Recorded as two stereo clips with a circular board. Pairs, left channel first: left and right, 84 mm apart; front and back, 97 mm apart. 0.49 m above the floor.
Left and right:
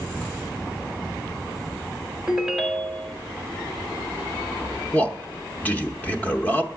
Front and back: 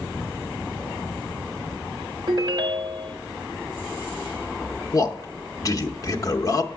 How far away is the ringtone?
About 0.8 m.